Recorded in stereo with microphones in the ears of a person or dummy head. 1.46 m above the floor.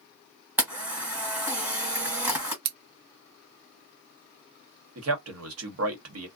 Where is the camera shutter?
5° right (ahead or behind), 1.8 m.